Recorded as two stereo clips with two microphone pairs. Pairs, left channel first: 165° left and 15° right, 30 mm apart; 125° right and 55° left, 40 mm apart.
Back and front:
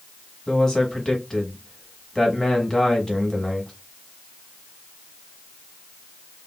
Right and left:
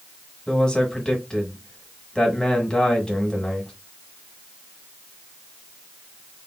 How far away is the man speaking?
About 1.1 m.